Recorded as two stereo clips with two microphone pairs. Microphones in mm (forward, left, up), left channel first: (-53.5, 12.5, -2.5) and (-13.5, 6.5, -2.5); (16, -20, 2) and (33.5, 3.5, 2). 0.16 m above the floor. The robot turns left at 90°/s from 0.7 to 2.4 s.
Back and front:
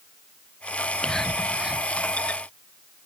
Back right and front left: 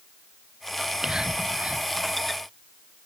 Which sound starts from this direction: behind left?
Whispering, at 0.8 s.